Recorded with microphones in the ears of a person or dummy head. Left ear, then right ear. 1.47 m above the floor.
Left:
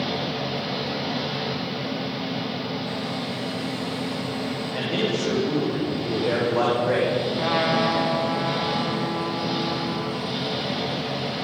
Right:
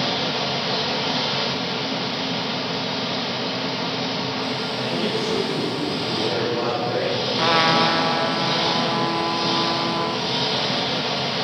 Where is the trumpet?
45° right (ahead or behind), 1.2 m.